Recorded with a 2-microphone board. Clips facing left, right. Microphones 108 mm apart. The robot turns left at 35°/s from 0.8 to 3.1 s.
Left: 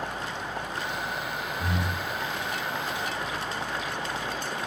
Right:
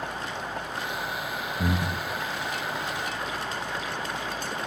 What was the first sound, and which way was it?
Breathing, 50° right (ahead or behind).